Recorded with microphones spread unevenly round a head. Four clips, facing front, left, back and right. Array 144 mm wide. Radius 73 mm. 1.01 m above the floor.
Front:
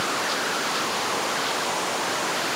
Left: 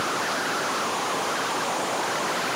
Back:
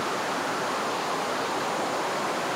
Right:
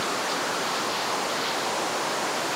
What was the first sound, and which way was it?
Only background noise.